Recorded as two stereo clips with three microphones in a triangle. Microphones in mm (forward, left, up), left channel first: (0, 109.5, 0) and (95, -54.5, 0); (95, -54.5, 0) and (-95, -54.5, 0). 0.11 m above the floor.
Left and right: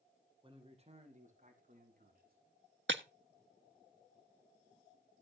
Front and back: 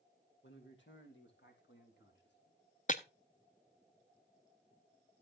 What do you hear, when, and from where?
0.4 s a man speaking: straight ahead, 4 m; by 2.4 s 25° right, 6 m
2.9 s breaking glass: 50° right, 1.3 m